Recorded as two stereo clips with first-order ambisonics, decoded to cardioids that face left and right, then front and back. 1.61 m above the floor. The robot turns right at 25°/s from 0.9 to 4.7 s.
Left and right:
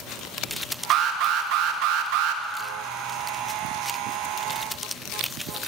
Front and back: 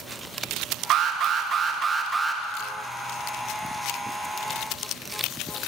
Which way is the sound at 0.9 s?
130° right.